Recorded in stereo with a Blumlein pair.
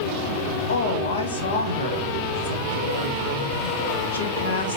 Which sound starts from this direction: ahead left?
A woman speaking, at 0.7 s.